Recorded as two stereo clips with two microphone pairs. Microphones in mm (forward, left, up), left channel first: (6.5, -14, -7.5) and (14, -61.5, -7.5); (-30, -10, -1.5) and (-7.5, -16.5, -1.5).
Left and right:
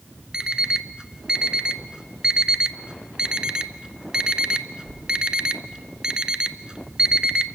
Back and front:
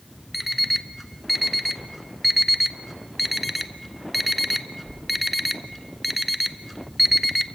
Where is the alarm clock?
105° right, 0.6 m.